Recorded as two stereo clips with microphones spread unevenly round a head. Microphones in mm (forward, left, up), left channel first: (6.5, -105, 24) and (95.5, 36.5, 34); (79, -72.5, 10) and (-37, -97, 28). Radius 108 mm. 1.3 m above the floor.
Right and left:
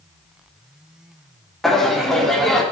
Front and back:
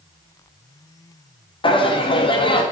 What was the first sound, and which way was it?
Laughter, 35° right.